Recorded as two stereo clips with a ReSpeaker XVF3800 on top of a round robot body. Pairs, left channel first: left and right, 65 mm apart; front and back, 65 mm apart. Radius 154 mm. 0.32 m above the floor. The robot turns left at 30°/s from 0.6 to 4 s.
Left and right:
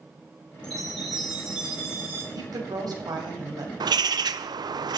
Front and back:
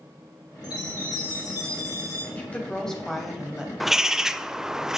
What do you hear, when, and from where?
0.6 s a chime: 15° left, 7 m; by 2.2 s 35° right, 7 m
2.4 s a woman speaking: 65° right, 3 m; by 3.7 s 105° right, 3 m
3.8 s a bird: 95° right, 0.6 m; by 5.0 s 100° right, 0.6 m